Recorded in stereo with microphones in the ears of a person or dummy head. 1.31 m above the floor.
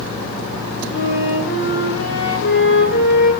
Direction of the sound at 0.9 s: 70° left (ahead or behind).